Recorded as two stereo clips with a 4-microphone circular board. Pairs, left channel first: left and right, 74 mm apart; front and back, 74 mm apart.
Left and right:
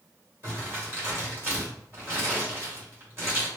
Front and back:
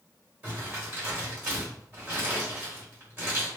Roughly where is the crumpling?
Behind right.